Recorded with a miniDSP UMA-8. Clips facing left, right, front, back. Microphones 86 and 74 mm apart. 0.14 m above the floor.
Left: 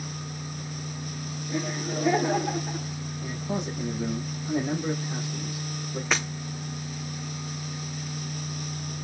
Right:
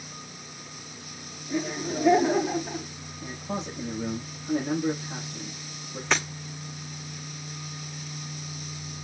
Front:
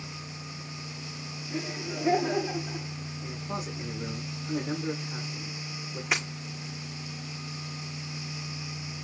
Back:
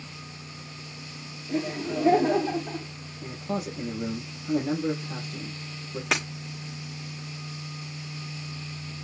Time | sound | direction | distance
1.5 | laughter | straight behind | 7.5 m
3.2 | a man speaking | 170° left | 6.5 m
6.1 | breaking glass | 175° left | 6.5 m